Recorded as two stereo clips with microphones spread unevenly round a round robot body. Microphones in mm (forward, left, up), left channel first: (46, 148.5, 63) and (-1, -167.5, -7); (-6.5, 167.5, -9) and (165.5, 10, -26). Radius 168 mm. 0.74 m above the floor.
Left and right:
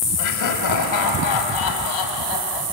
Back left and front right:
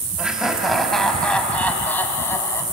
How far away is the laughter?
About 4.5 m.